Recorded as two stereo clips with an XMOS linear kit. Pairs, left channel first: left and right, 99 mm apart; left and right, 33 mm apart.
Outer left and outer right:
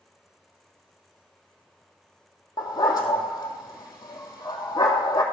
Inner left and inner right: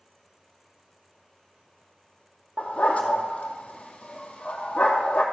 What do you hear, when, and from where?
2.6 s a dog barking: 40° left (ahead or behind), 2 m